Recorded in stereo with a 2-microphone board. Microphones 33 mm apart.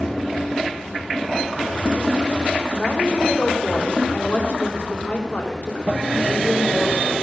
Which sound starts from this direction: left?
A woman speaking, at 2.7 s.